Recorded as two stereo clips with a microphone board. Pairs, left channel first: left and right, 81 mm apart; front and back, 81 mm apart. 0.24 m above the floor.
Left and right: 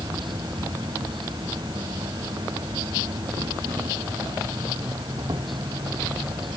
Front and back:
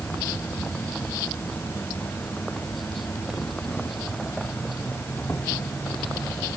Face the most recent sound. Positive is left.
turn(degrees=-65)